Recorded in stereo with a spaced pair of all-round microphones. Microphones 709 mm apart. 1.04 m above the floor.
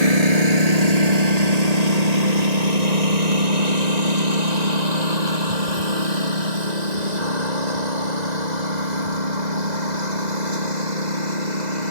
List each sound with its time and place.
0.0 s a lawn mower: 60° right (ahead or behind); by 11.9 s 75° right (ahead or behind)